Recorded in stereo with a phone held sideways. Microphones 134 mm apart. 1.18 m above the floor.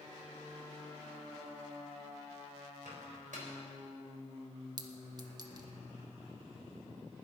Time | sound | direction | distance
2.9 | a microwave | 85° right | 3.5 m
4.8 | a clink | 30° right (ahead or behind) | 0.9 m